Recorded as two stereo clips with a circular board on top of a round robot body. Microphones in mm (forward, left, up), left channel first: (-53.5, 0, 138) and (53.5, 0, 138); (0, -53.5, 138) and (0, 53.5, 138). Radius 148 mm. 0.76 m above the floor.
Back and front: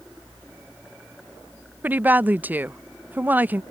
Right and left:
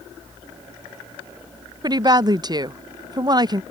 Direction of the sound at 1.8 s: 65° left.